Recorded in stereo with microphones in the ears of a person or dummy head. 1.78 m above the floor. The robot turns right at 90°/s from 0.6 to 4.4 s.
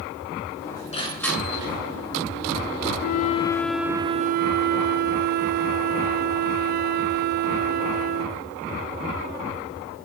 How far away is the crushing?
About 6.5 m.